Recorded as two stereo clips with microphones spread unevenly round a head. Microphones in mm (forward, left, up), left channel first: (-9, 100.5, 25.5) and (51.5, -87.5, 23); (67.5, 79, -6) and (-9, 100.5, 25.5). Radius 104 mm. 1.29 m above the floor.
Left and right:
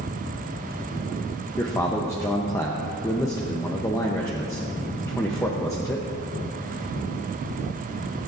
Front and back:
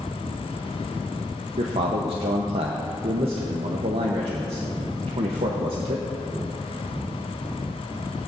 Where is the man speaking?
175° right, 0.8 m.